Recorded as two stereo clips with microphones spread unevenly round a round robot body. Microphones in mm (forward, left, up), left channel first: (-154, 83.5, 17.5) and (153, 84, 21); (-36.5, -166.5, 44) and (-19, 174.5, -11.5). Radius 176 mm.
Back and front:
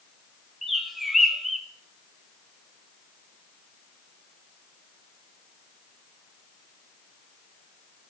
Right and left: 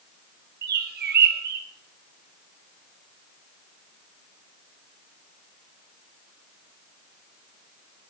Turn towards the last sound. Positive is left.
turn(degrees=90)